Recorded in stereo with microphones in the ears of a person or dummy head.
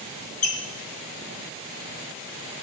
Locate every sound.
0.4 s a squeak: 45° left (ahead or behind), 1.2 m